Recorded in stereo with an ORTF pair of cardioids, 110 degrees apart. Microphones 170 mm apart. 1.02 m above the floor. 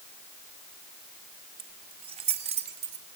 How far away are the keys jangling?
About 4.5 m.